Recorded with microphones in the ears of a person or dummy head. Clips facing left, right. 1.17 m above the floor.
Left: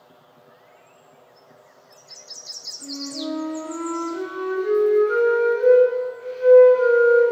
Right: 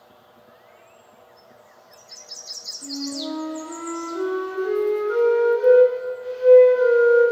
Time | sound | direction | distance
2.8 | a flute | 40° left (ahead or behind) | 6.5 m